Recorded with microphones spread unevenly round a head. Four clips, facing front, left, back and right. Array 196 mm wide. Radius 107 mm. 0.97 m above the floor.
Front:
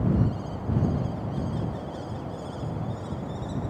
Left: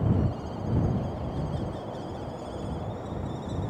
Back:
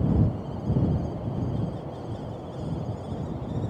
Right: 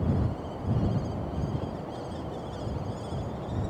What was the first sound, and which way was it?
Only background noise.